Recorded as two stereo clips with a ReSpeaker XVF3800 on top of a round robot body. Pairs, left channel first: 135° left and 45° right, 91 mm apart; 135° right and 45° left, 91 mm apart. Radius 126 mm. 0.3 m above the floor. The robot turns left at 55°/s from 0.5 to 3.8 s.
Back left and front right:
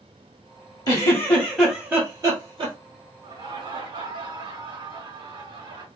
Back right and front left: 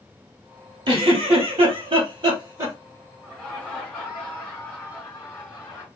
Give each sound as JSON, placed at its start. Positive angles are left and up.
{"t": 0.9, "sound": "a giggle", "azimuth_deg": 85, "distance_m": 2.5}
{"t": 3.2, "sound": "laughter", "azimuth_deg": -40, "distance_m": 4.0}